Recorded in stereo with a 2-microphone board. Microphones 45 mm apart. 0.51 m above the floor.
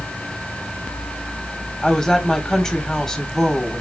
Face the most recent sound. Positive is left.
turn(degrees=15)  # may be behind; listen again after turning